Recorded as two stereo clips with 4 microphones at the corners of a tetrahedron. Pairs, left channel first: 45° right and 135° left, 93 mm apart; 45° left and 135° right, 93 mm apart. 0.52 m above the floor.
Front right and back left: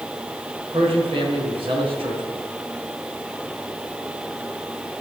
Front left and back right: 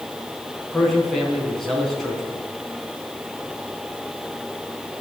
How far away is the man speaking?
About 4.5 m.